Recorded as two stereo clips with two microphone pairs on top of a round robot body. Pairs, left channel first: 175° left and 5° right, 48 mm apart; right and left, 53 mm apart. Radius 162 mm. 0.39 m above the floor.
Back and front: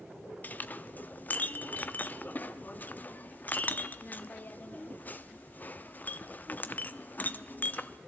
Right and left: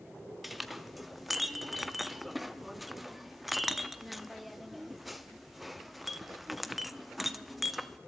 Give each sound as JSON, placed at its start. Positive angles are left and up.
{"t": 0.4, "sound": "a clink", "azimuth_deg": 170, "distance_m": 0.8}